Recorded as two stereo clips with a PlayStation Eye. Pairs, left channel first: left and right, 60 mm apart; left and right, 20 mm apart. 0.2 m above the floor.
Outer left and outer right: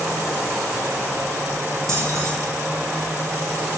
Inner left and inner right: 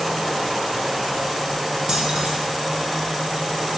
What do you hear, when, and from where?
1.9 s keys jangling: 55° right (ahead or behind), 4 m